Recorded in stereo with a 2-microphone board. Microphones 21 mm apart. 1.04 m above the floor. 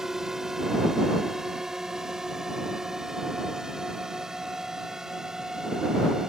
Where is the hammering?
I don't hear hammering.